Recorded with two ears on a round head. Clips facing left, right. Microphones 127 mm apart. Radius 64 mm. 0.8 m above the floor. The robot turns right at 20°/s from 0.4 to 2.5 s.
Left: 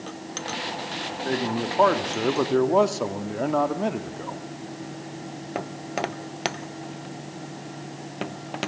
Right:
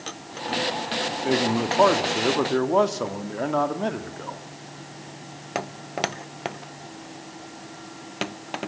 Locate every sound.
1.2 s a man speaking: 20° right (ahead or behind), 2.0 m; by 4.4 s 5° left (ahead or behind), 2.0 m